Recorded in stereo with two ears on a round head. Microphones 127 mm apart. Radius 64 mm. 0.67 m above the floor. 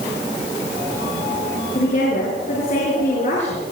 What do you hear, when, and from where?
1.8 s a woman speaking: 50° left (ahead or behind), 9.5 m